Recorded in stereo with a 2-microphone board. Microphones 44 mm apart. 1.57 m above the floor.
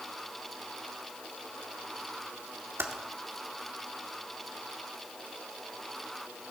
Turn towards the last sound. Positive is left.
turn(degrees=-65)  # may be behind; listen again after turning